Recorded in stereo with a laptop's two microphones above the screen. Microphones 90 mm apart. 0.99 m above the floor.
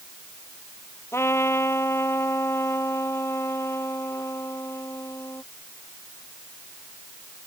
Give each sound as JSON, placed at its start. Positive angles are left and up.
{"t": 1.1, "sound": "a trumpet", "side_deg": 30}